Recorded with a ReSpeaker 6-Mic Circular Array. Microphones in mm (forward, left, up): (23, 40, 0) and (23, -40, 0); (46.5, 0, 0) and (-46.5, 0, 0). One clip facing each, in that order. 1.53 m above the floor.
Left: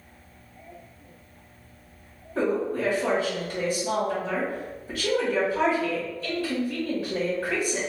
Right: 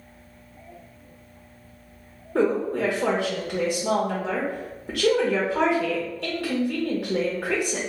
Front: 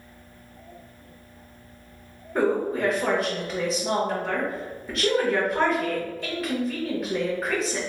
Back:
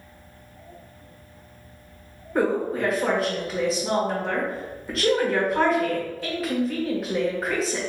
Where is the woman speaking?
90° right, 1.2 m.